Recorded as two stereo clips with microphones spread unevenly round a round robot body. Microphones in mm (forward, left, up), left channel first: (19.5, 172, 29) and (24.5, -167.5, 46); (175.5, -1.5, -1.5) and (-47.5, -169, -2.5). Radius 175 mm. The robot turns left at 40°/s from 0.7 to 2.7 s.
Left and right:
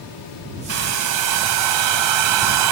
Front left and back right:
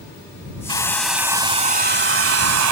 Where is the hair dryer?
40° right; by 2.7 s 120° right.